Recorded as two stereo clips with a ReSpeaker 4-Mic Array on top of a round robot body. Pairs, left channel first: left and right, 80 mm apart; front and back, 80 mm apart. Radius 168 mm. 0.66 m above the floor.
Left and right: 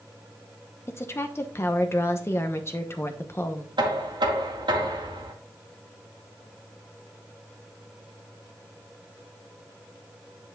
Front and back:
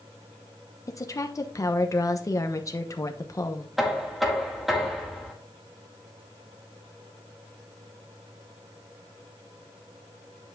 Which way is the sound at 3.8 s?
95° right.